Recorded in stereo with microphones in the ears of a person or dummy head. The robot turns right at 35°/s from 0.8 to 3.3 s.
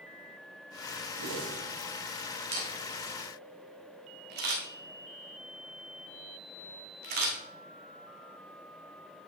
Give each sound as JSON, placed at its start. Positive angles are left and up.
{"t": 1.2, "sound": "a whoosh", "side_deg": -65, "distance_m": 1.1}
{"t": 2.5, "sound": "a camera shutter", "side_deg": -25, "distance_m": 1.4}